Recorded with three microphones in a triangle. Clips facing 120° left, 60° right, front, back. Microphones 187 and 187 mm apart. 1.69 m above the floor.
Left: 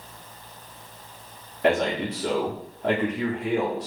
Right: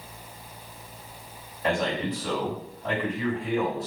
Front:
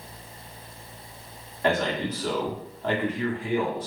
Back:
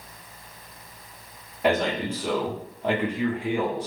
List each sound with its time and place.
1.6 s a man speaking: 105° left, 1.4 m